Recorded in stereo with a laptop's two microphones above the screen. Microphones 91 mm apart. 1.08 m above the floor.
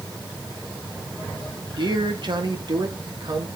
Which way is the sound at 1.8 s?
55° right (ahead or behind).